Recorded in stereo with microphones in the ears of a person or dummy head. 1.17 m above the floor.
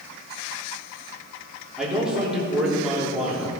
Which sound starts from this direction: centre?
A man speaking, at 1.8 s.